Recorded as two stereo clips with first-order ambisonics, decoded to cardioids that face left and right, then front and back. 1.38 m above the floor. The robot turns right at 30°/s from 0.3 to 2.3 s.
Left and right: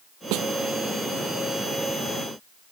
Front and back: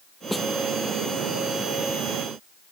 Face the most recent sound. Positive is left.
turn(degrees=-25)